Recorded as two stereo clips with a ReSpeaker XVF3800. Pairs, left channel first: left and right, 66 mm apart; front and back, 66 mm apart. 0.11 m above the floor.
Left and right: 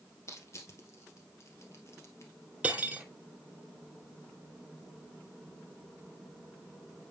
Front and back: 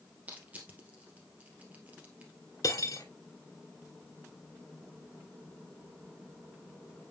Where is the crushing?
120° left, 2 m.